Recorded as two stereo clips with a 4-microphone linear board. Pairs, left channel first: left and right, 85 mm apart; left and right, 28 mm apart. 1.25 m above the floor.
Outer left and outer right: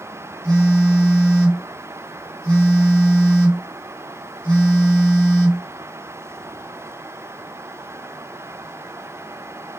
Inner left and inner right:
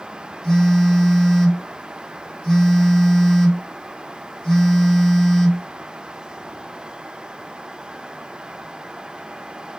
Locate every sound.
0.4 s a phone buzzing: 10° left (ahead or behind), 1.3 m